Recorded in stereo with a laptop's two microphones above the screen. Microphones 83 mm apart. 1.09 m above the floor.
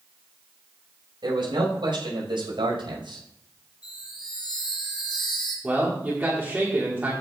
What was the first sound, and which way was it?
A man speaking, 75° right (ahead or behind).